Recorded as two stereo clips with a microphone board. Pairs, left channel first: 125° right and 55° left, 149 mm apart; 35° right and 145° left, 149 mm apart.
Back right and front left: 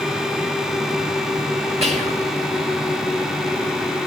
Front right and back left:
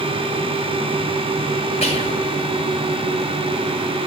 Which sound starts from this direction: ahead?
Whispering, at 1.8 s.